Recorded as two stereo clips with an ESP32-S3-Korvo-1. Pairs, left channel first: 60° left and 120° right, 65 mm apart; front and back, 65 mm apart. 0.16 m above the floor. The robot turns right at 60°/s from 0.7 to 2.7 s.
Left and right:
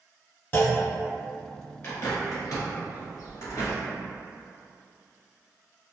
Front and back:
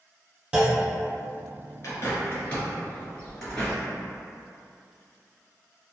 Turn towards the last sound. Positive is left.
turn(degrees=75)